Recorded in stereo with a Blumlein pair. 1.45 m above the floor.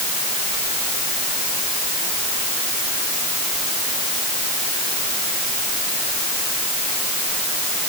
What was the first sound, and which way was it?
Only background noise.